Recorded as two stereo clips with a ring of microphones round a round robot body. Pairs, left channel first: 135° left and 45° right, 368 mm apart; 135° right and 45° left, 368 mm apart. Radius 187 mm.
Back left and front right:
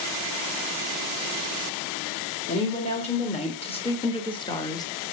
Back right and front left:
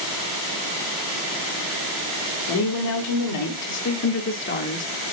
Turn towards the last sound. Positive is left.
turn(degrees=-160)